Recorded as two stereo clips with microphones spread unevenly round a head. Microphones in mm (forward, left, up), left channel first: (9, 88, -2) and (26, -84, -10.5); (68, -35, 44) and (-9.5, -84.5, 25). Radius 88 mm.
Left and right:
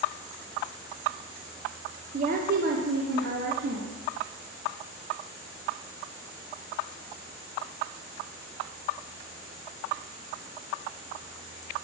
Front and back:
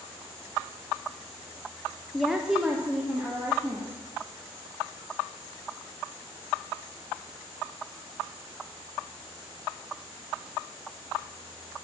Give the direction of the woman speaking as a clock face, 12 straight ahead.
2 o'clock.